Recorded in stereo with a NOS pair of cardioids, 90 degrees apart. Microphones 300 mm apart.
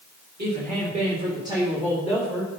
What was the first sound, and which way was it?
A woman speaking, 35° right.